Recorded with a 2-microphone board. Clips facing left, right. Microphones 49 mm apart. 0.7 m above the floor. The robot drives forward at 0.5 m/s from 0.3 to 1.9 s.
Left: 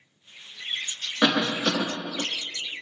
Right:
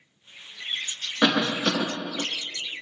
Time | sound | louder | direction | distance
1.2 | a cough | even | 10° right (ahead or behind) | 0.6 m